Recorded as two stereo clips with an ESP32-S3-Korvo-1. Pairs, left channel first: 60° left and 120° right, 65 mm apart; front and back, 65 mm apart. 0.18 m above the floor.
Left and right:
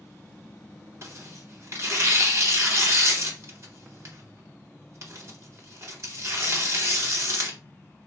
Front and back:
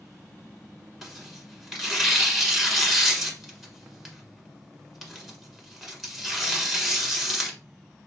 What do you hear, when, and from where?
1.0 s tearing paper: 95° right, 1.4 m